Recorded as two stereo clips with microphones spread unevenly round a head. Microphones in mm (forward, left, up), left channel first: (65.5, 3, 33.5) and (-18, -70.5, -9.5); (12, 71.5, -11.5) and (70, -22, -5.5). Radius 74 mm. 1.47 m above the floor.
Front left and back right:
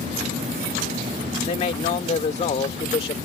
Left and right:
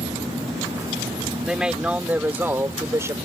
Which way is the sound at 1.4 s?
25° left.